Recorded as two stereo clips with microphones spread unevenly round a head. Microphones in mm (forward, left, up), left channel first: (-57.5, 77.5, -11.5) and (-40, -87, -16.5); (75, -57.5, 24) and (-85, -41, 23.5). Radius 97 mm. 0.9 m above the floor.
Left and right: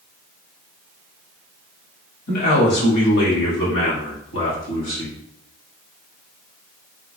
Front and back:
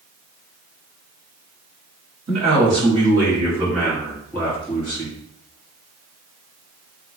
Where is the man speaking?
120° left, 1.6 m; by 5.2 s 65° left, 1.9 m.